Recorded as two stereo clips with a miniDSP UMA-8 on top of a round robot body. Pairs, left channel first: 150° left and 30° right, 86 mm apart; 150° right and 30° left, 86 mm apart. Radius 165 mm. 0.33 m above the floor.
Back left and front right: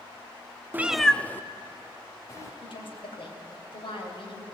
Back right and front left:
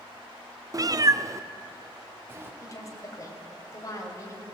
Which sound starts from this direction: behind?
A woman speaking, at 2.6 s.